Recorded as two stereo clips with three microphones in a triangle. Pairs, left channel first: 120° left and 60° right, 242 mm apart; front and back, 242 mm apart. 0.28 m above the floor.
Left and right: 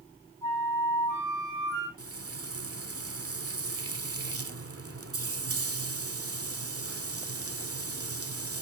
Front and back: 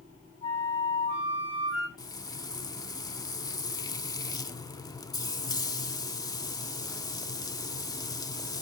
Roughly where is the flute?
Behind.